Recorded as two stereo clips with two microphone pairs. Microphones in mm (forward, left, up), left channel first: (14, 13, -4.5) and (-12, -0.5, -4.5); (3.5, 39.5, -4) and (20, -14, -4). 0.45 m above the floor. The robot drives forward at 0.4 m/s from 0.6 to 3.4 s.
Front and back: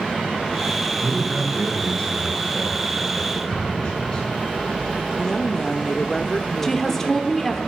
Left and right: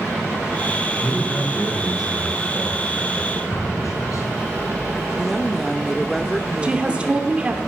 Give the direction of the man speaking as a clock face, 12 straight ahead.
10 o'clock.